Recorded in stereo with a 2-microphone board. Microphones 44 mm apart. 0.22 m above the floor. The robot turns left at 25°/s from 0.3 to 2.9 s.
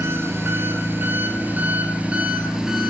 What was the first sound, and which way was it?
An engine running, 105° right.